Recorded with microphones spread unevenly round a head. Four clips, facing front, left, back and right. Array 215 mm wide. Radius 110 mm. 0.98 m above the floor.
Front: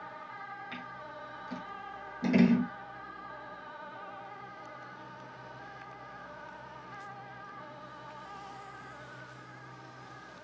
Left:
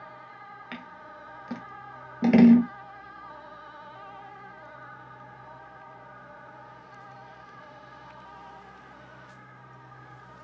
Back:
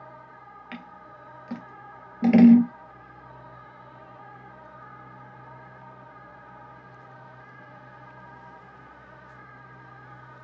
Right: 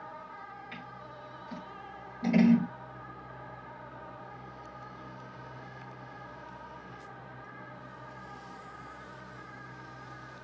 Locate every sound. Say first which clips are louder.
0.7 s scissors: left 3 dB, back 1 dB; 115° left, 1.2 m